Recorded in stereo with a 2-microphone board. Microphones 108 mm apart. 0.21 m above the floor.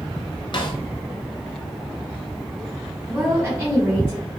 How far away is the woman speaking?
About 1.6 m.